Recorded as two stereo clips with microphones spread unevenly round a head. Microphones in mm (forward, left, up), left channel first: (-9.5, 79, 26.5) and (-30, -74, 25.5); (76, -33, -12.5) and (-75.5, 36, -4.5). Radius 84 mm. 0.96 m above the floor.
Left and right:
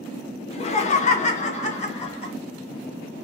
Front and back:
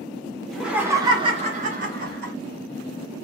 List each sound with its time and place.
0.5 s laughter: 60° left, 0.7 m; by 2.3 s 125° left, 1.3 m